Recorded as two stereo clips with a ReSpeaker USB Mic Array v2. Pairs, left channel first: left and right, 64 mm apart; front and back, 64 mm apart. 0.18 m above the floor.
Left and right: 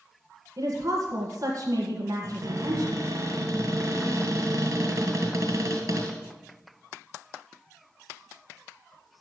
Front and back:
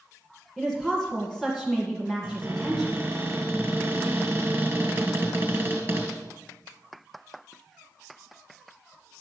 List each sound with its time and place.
0.6 s a woman speaking: 95° right, 2.0 m
2.2 s a cupboard door: 125° right, 2.5 m